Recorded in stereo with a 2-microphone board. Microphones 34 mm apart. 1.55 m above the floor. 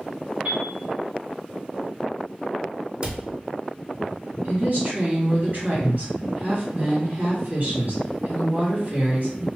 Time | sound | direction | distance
0.5 | a piano | 70° right (ahead or behind) | 1.8 m
3.0 | a cupboard door | 25° right (ahead or behind) | 0.6 m
4.4 | a woman speaking | 65° right (ahead or behind) | 1.9 m